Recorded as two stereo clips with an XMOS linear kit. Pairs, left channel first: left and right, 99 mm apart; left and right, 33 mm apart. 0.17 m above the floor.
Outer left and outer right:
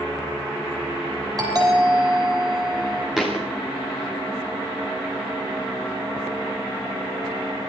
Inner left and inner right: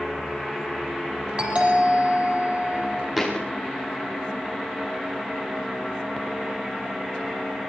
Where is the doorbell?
35° right (ahead or behind), 9 m.